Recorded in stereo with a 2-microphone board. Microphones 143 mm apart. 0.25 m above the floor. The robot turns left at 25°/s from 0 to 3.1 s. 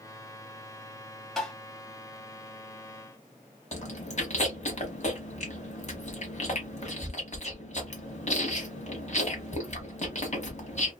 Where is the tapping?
5° left (ahead or behind), 1.5 m.